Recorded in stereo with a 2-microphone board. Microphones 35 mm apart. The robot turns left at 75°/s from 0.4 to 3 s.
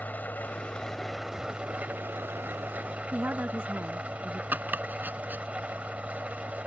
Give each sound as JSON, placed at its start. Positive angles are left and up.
{"t": 0.0, "sound": "an engine running", "azimuth_deg": 55}
{"t": 3.1, "sound": "a woman speaking", "side_deg": -65}
{"t": 4.5, "sound": "chopping", "side_deg": -60}